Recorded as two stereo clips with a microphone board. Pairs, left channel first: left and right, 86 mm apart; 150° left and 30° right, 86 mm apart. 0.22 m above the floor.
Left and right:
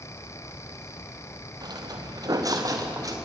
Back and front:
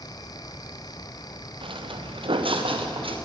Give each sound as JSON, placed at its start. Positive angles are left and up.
{"t": 1.6, "sound": "footsteps", "azimuth_deg": -45, "distance_m": 2.5}